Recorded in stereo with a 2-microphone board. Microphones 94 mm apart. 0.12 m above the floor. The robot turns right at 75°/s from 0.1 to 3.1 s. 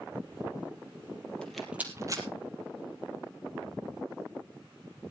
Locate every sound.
1.4 s a rattle: 10° left (ahead or behind), 2.5 m; by 2.2 s 45° right (ahead or behind), 2.5 m